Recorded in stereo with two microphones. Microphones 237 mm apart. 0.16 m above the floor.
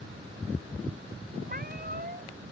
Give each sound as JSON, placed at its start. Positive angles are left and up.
{"t": 1.5, "sound": "a cat meowing", "side_deg": -40}